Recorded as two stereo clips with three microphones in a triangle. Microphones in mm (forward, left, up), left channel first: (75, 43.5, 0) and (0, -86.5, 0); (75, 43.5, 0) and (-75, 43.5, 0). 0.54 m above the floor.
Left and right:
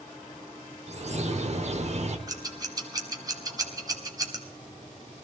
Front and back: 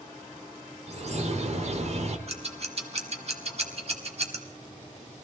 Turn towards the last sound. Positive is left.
turn(degrees=-170)